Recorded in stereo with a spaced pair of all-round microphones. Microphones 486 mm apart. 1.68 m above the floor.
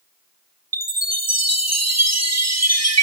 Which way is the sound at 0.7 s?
30° right (ahead or behind).